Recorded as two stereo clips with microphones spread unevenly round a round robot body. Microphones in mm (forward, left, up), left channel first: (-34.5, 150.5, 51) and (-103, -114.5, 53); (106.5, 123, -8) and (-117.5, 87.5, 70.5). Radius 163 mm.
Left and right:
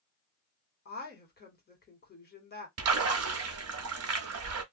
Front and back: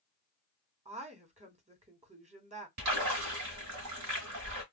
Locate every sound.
0.8 s a woman speaking: 120° left, 1.7 m
2.8 s a splash: 135° right, 1.0 m